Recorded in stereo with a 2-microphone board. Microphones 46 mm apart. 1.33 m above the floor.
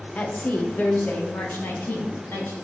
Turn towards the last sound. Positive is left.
turn(degrees=45)  # may be behind; listen again after turning